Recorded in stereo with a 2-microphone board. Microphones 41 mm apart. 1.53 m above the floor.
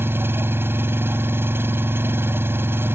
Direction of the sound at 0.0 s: 60° right (ahead or behind).